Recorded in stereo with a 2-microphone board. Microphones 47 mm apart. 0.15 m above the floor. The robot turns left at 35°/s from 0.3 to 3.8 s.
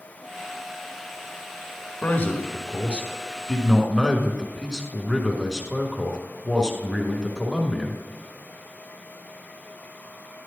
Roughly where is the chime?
I don't hear a chime.